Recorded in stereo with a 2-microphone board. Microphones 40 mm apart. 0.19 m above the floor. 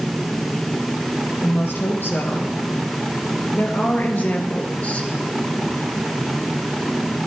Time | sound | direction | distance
1.4 | a woman speaking | 75° left (ahead or behind) | 4 m